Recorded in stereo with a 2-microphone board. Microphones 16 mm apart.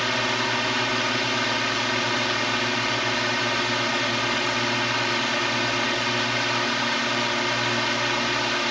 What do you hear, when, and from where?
0.0 s a drone: 5° left (ahead or behind)